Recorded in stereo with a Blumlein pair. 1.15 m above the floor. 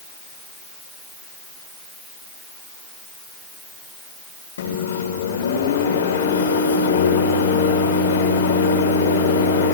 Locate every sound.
4.6 s a microwave: 65° left, 3.5 m